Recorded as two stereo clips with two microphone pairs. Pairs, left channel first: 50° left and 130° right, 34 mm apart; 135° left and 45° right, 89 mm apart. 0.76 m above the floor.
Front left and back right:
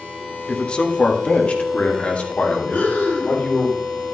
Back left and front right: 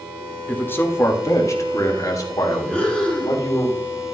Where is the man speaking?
85° left, 1.1 m; by 3.7 s 90° left, 3.5 m.